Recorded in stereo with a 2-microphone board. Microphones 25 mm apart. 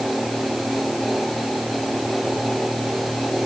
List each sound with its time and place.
Only background noise.